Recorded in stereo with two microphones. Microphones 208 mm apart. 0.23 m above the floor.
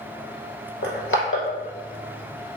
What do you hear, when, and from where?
0.8 s crushing: 80° left, 1.4 m